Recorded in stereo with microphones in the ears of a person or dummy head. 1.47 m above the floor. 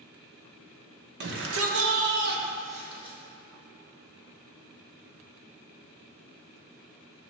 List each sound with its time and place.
1.2 s a shout: 55° right (ahead or behind), 1.4 m; by 3.2 s 25° right (ahead or behind), 2 m